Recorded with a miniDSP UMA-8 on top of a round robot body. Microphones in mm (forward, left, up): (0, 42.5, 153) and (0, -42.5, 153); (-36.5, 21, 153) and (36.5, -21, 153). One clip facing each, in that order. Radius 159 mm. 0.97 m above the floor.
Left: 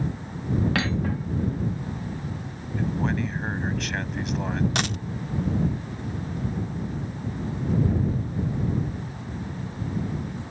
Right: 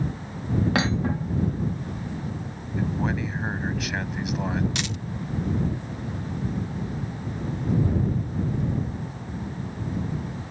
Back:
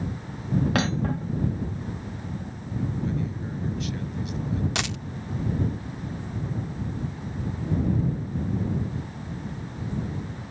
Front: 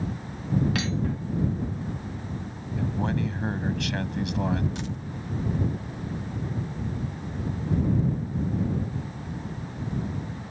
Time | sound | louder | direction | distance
0.8 | cutlery clinking | right 2 dB, back 3 dB | 160° right | ?
2.8 | a man speaking | even, front 1 dB | 5° right | ?
4.8 | a dropped coin | left 3 dB, back 3 dB | 135° left | ?